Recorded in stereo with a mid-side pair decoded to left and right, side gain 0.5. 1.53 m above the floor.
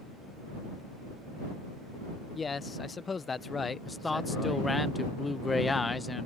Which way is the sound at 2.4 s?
30° left.